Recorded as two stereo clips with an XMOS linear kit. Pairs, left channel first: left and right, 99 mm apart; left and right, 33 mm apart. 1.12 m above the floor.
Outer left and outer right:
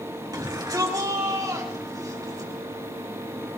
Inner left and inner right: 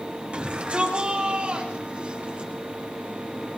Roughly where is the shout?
Right.